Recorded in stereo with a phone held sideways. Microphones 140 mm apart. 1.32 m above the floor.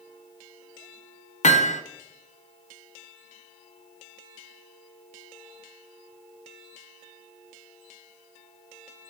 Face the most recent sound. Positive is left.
turn(degrees=55)  # may be behind; listen again after turning